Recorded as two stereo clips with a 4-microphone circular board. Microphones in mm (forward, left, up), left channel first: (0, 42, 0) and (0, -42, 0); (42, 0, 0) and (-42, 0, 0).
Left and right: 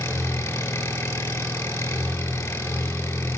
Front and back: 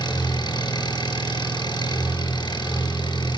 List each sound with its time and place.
0.0 s an engine running: 35° left, 5 m